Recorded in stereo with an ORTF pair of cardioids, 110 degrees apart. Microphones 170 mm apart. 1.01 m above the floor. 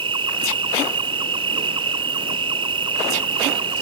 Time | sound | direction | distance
0.0 | an insect | 30° right | ?